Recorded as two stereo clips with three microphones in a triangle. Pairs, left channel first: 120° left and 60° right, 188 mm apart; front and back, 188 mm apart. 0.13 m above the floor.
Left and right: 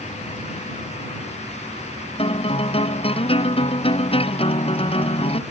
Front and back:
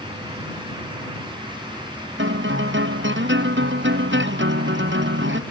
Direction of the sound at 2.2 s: Straight behind.